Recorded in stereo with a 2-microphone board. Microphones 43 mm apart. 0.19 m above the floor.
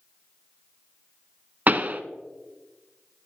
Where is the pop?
40° right (ahead or behind), 0.5 m.